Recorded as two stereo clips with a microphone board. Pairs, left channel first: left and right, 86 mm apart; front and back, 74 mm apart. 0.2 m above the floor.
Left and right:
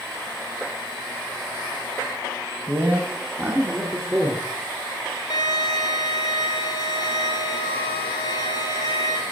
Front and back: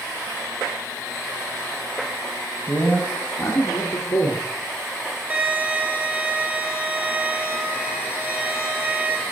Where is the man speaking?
45° right, 1.2 m; by 4.4 s 30° right, 2.5 m.